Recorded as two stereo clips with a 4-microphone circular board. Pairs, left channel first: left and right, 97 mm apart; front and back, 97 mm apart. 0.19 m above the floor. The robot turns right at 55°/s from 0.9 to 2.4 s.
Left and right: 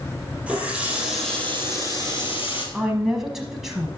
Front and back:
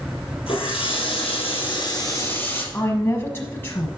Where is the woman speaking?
10° right, 1.0 m.